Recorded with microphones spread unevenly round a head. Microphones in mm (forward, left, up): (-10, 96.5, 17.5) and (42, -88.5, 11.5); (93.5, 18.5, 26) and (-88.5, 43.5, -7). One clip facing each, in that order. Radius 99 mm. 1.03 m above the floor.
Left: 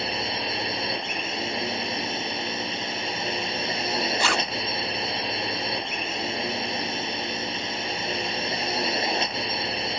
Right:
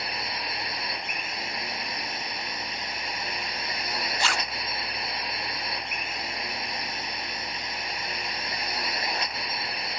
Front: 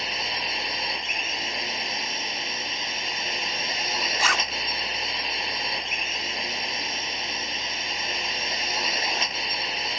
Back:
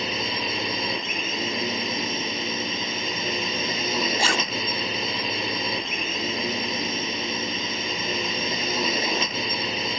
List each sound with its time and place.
0.0 s a drone: 175° left
4.2 s a zipper: 115° left